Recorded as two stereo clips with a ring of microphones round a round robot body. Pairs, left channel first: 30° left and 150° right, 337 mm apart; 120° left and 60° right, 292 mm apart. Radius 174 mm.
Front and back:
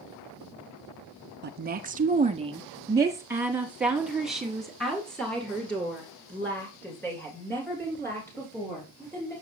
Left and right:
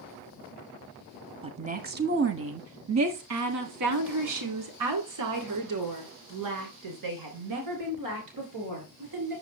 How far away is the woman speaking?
About 0.9 m.